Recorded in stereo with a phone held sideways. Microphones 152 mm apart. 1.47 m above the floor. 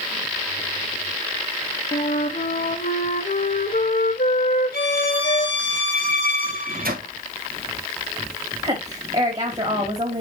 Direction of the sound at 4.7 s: 70° right (ahead or behind).